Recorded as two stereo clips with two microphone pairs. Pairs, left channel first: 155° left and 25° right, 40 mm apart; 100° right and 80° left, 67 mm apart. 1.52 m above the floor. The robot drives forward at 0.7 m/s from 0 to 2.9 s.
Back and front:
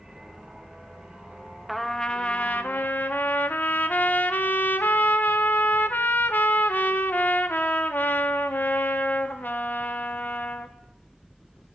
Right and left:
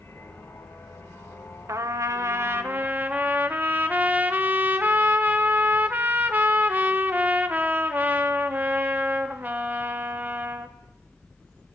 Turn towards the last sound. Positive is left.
turn(degrees=135)